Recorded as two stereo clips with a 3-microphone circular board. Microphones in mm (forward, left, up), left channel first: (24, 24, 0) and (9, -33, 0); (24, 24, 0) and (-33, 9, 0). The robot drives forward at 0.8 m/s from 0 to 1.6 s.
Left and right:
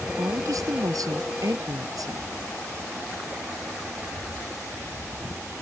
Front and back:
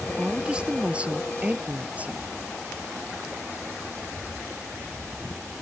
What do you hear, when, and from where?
0.2 s a woman speaking: 90° right; by 2.3 s 100° right